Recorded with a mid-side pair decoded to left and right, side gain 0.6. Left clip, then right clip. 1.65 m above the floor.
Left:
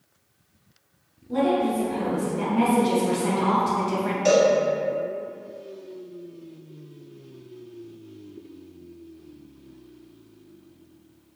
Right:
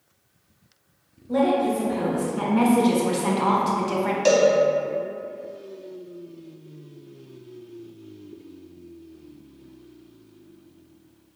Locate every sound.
1.3 s a woman speaking: 55° right, 1.9 m; by 4.2 s 15° right, 0.7 m
4.2 s a cowbell: 45° right, 1.1 m